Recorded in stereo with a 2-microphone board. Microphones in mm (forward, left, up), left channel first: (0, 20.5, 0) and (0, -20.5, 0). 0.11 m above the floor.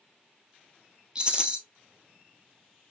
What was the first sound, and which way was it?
A rattle, 25° right (ahead or behind).